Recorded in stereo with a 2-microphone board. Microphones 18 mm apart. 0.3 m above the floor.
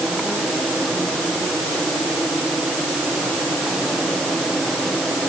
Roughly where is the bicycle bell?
No bicycle bell in this recording.